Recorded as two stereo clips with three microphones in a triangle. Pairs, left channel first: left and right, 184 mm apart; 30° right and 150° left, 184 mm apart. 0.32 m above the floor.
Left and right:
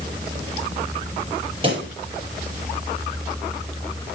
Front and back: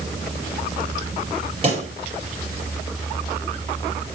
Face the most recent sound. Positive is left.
turn(degrees=-150)